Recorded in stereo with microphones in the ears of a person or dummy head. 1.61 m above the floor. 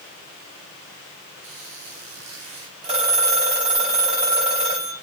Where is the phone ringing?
30° right (ahead or behind), 5 m.